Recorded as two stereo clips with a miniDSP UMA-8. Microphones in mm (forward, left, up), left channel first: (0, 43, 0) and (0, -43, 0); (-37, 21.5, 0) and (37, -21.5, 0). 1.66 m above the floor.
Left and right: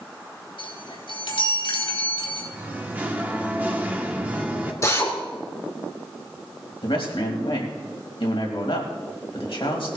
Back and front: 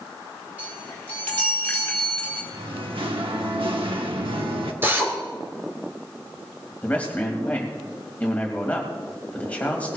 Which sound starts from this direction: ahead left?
A drill, at 4.8 s.